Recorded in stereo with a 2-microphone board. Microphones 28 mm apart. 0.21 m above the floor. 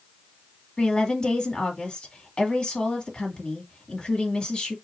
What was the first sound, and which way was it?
A woman speaking, 35° left (ahead or behind).